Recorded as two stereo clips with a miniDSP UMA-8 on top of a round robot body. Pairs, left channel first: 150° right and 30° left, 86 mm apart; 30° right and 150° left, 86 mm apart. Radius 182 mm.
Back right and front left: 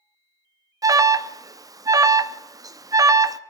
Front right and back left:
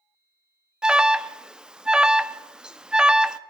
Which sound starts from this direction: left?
An alarm, at 0.8 s.